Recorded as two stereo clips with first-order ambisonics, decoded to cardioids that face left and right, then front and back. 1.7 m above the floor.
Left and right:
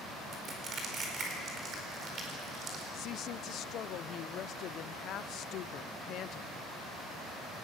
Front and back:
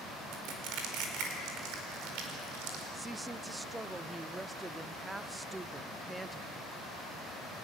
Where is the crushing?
155° right, 4.5 m.